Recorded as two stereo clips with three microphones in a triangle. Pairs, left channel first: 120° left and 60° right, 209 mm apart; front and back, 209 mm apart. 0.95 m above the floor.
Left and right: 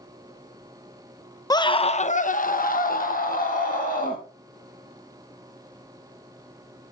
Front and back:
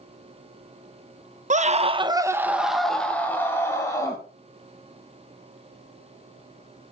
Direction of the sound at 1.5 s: Straight behind.